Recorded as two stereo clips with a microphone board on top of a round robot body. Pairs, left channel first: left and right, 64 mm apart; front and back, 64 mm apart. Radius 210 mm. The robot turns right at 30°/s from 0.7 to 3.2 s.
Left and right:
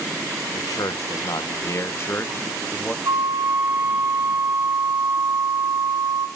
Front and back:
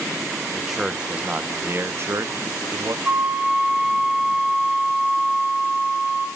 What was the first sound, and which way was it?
A man speaking, 95° left.